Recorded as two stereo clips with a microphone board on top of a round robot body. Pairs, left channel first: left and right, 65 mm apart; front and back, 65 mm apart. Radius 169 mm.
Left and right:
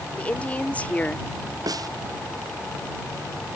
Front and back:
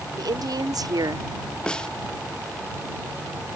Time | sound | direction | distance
0.2 | a woman speaking | 160° left | ?
1.7 | a snare drum | 75° right | ?